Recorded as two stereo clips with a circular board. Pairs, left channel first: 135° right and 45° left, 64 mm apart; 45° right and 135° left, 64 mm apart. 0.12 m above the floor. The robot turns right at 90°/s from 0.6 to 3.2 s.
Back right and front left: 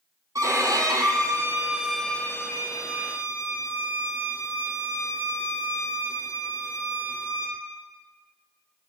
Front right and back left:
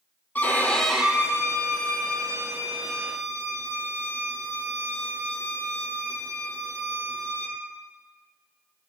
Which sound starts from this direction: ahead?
A violin, at 0.3 s.